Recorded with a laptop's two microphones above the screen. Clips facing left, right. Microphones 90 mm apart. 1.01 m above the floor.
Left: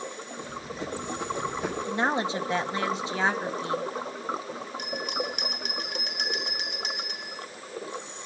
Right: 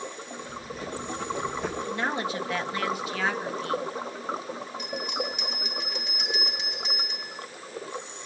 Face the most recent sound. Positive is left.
turn(degrees=80)